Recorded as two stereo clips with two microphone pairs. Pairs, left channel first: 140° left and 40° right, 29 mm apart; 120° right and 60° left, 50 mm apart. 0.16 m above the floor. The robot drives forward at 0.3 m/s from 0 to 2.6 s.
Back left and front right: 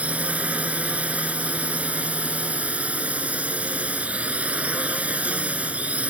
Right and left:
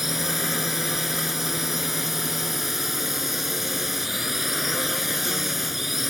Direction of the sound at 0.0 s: 25° right.